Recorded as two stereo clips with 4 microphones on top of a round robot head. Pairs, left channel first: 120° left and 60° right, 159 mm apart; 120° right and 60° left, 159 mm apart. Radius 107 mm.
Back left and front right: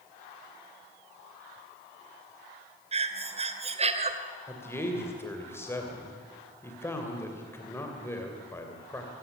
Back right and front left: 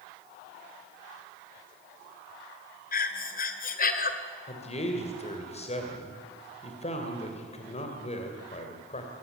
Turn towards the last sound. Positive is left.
turn(degrees=-165)